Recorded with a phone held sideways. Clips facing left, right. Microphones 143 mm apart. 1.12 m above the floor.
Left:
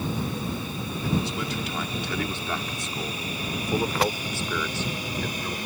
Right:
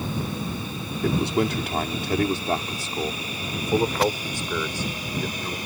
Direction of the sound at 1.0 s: 65° right (ahead or behind).